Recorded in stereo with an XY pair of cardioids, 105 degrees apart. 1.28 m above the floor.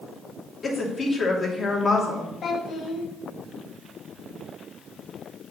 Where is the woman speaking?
30° left, 3 m.